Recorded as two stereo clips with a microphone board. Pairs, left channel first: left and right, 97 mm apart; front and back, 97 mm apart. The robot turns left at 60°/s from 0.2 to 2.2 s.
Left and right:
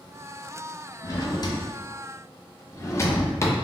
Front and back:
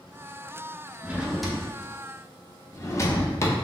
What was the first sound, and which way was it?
A drawer, 115° left.